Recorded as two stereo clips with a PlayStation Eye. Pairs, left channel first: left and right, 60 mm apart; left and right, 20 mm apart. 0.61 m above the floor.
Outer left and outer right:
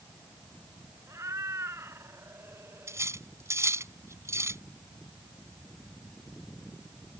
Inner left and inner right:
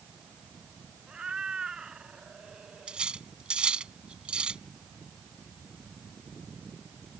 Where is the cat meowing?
55° right (ahead or behind); by 3.1 s 40° right (ahead or behind).